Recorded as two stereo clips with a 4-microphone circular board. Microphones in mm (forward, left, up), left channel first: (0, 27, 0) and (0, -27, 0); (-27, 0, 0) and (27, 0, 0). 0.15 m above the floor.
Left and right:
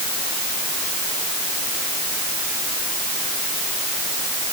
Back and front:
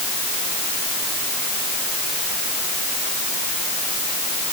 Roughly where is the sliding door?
I don't hear a sliding door.